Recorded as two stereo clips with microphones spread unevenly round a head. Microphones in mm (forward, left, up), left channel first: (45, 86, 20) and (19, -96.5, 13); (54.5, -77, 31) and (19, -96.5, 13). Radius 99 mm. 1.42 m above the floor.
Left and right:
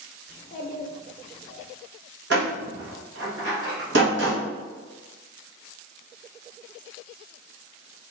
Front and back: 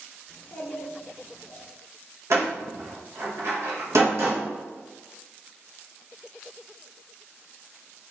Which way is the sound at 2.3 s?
135° right.